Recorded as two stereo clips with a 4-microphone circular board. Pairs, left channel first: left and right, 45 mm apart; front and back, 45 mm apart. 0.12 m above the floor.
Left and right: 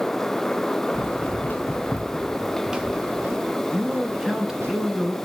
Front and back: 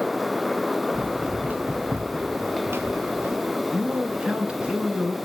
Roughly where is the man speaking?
Behind right.